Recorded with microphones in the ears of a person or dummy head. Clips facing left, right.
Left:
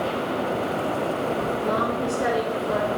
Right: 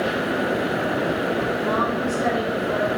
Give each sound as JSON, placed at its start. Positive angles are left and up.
{"t": 1.6, "sound": "a woman speaking", "side_deg": 30, "distance_m": 4.0}